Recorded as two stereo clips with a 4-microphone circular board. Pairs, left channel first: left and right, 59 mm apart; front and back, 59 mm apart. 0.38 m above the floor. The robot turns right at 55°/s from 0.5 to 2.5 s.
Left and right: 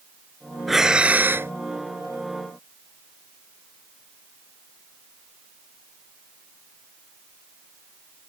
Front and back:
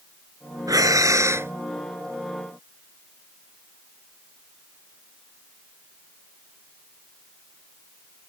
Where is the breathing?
Straight behind; by 1.5 s 135° right.